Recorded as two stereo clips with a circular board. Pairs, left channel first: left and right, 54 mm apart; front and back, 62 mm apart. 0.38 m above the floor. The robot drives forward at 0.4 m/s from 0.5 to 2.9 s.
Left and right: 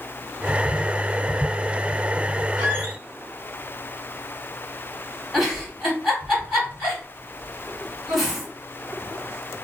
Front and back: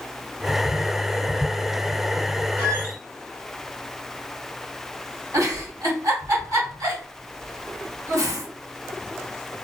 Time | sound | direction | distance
2.6 | a squeak | 165° right | 1.7 m
5.3 | a giggle | 175° right | 2 m